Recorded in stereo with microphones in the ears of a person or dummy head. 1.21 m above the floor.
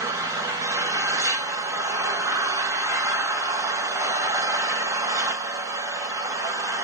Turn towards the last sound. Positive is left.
turn(degrees=-15)  # may be behind; listen again after turning